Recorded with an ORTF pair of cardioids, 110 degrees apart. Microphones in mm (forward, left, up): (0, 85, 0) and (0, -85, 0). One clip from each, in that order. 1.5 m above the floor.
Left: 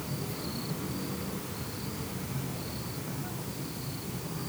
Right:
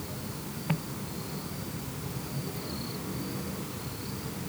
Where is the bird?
No bird in this recording.